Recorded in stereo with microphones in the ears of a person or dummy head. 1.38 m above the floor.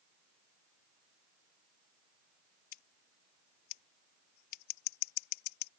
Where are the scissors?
60° left (ahead or behind).